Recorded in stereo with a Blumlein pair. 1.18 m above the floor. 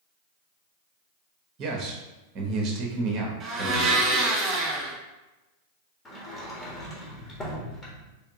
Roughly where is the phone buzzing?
I don't hear a phone buzzing.